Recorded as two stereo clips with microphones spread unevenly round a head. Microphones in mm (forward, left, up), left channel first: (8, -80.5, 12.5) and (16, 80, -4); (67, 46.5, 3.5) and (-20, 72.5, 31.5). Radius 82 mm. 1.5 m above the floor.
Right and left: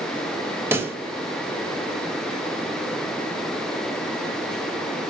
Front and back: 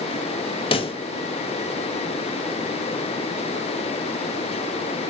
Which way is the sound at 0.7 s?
10° left.